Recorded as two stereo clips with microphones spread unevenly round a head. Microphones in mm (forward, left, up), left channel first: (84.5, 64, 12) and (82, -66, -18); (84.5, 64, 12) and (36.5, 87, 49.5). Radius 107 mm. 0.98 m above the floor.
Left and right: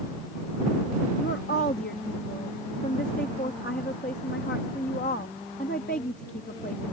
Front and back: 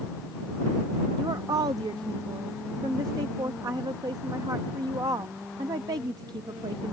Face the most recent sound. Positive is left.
turn(degrees=140)